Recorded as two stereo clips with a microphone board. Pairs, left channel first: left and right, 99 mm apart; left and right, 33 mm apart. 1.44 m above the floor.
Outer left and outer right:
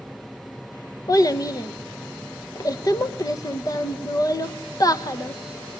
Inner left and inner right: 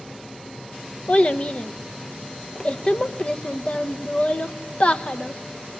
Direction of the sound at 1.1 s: 40° left (ahead or behind).